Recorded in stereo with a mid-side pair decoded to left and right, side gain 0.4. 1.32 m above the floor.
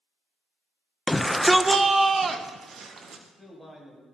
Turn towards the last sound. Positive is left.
turn(degrees=-10)